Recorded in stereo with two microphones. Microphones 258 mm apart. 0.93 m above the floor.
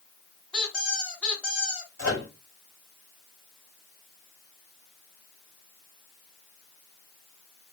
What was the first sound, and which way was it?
A squeak, 5° left (ahead or behind).